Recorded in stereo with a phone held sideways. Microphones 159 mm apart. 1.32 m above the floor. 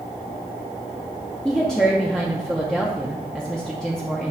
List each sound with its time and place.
1.4 s a woman speaking: 5° left (ahead or behind), 0.8 m